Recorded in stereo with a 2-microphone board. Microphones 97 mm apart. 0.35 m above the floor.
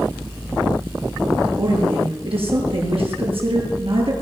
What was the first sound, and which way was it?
A woman speaking, 70° right (ahead or behind).